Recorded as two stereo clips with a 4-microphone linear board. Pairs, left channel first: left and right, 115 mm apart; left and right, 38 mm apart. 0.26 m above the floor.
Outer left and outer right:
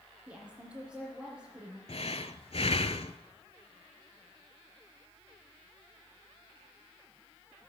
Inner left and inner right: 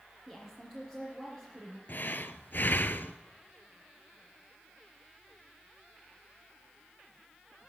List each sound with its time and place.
0.3 s a woman speaking: 5° right (ahead or behind), 4.5 m
1.9 s breathing: 60° left (ahead or behind), 0.7 m